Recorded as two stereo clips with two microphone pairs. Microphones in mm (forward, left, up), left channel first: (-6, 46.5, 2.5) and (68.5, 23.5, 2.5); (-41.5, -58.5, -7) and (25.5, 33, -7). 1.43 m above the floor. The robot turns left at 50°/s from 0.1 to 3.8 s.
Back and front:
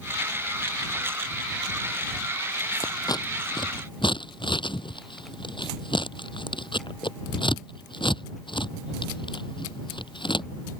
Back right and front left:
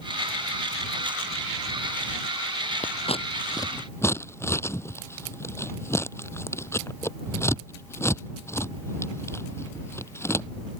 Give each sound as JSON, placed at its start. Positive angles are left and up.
{"t": 2.8, "sound": "scissors", "azimuth_deg": -145}